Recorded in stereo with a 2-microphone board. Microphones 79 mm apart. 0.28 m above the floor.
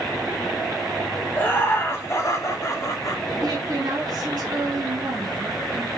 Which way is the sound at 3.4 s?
60° right (ahead or behind).